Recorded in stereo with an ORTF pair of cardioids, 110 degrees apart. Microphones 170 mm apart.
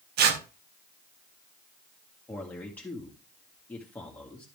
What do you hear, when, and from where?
0.2 s tearing paper: 70° right, 1.1 m
2.3 s a man speaking: 10° left, 2 m